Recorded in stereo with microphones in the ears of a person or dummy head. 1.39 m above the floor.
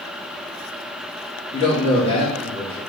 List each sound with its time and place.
1.5 s a man speaking: 35° left (ahead or behind), 1.7 m